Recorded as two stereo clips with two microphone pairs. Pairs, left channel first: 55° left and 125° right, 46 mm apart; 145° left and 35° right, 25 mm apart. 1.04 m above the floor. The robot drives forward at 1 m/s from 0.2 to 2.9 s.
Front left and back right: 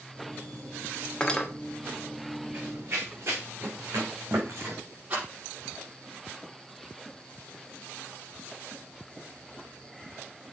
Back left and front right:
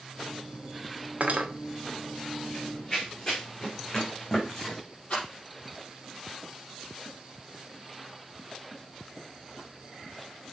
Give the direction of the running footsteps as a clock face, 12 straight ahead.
5 o'clock.